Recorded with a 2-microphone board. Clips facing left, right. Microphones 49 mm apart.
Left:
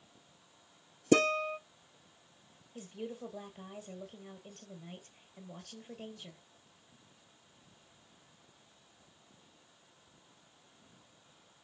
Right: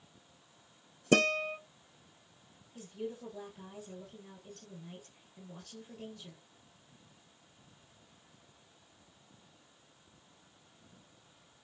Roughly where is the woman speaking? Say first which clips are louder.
Right 1 dB; left.